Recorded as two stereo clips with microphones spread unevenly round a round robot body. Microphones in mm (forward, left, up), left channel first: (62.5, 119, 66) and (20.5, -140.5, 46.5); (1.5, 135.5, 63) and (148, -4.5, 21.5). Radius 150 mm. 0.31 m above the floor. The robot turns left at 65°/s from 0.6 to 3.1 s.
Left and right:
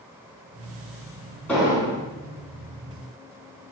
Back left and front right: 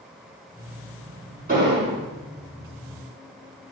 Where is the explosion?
5° right, 4 m; by 2.0 s 40° right, 4 m.